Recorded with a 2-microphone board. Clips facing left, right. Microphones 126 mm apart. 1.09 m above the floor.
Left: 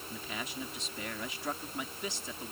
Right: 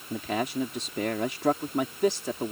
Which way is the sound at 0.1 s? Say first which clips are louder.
Right 13 dB; 65° right (ahead or behind).